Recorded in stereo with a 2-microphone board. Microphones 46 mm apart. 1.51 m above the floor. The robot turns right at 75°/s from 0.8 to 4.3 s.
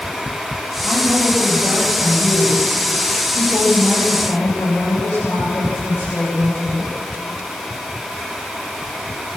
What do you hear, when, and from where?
0.8 s a woman speaking: 145° right, 9.5 m; by 6.9 s 115° left, 9.5 m